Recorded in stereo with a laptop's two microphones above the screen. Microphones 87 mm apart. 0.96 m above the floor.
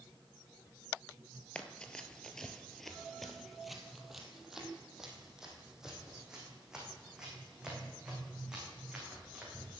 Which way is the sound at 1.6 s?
15° left (ahead or behind).